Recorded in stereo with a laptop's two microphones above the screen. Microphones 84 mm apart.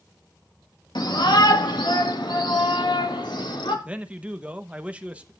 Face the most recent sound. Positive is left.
turn(degrees=-15)  # may be behind; listen again after turning